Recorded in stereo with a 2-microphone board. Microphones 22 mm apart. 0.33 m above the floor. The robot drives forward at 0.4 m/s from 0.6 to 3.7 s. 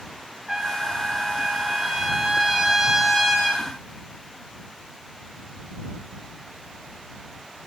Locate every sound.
0.5 s a trumpet: 25° right (ahead or behind), 1.7 m; by 3.6 s 15° right (ahead or behind), 2.5 m